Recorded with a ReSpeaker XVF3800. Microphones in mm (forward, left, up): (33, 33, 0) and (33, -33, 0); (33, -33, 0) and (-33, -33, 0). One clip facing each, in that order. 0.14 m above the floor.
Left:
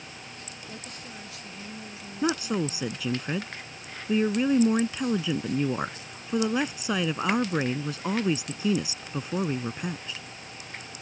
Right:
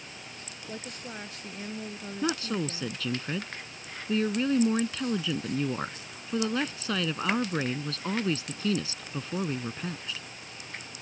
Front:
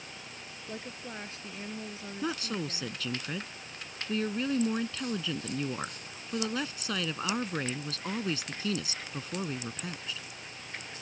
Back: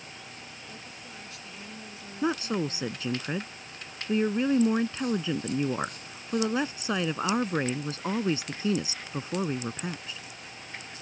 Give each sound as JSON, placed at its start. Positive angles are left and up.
{"t": 0.7, "sound": "a woman speaking", "azimuth_deg": -40}
{"t": 2.2, "sound": "a woman speaking", "azimuth_deg": 150}